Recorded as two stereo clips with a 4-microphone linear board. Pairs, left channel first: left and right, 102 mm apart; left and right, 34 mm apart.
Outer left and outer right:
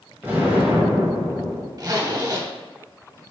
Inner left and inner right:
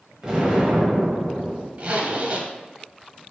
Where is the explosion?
20° right (ahead or behind), 1.3 m.